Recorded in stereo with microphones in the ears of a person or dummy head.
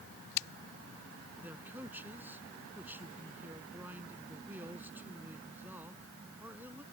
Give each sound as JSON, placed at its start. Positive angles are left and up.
{"t": 1.4, "sound": "a man speaking", "side_deg": -5}